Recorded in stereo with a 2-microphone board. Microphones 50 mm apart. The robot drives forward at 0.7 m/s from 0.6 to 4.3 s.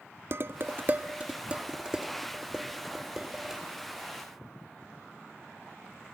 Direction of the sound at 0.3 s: 45° right (ahead or behind).